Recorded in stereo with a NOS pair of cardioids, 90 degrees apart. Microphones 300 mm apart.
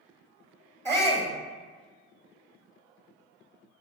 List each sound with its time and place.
0.8 s a shout: 10° right, 0.7 m